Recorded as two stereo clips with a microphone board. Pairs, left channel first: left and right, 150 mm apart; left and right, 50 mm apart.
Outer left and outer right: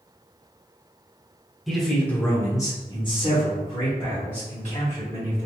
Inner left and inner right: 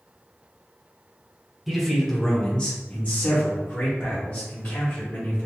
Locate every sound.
1.7 s a man speaking: centre (ahead or behind), 0.9 m; by 5.5 s 45° left (ahead or behind), 1.9 m